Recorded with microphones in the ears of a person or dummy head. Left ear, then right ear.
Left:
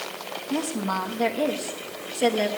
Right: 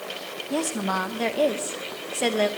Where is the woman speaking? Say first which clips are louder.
Right 2 dB; 20° right (ahead or behind), 0.9 m.